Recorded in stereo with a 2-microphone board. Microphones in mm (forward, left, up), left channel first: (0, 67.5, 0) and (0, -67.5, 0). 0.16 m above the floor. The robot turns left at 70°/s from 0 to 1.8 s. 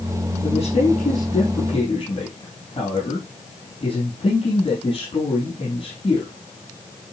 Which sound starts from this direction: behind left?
A man speaking, at 0.4 s.